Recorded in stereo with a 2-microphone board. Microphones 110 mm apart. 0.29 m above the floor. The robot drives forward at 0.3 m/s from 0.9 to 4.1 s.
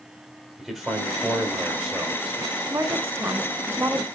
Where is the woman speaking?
25° right (ahead or behind), 0.9 m; by 4.1 s 20° right (ahead or behind), 1.0 m.